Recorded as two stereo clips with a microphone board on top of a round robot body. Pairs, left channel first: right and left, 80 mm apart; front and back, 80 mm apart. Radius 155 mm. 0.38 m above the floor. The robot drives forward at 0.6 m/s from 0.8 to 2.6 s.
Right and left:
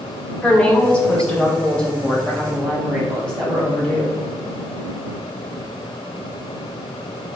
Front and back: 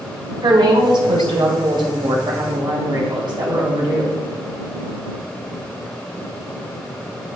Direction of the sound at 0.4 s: 165° right.